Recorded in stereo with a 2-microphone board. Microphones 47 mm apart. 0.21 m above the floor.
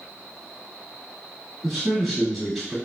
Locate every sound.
1.6 s a man speaking: 5° left (ahead or behind), 1.3 m